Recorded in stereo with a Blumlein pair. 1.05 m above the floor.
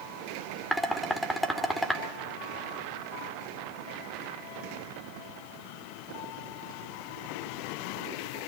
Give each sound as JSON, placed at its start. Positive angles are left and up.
{"t": 0.7, "sound": "dishes clattering", "azimuth_deg": 0, "distance_m": 2.0}